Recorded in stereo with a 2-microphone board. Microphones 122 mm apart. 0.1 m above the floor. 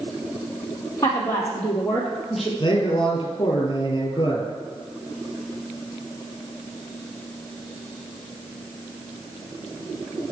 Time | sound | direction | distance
1.0 | a woman speaking | 25° left (ahead or behind) | 2.5 m
2.6 | a man speaking | 40° left (ahead or behind) | 2 m